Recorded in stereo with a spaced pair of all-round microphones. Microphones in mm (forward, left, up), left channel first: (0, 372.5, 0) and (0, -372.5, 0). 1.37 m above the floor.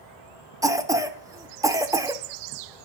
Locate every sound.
0.6 s a cough: 5° right (ahead or behind), 0.5 m